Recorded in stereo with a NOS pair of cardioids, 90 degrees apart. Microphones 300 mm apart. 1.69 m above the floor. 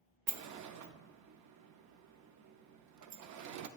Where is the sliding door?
70° right, 0.5 m.